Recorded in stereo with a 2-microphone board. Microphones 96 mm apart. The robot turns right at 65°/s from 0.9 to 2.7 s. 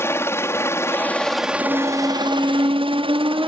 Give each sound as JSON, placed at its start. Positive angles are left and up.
{"t": 0.0, "sound": "a helicopter", "side_deg": 25}
{"t": 1.6, "sound": "a squeak", "azimuth_deg": 140}